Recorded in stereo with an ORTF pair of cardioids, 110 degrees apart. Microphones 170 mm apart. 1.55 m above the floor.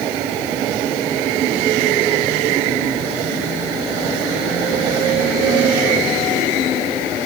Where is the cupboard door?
No cupboard door in this recording.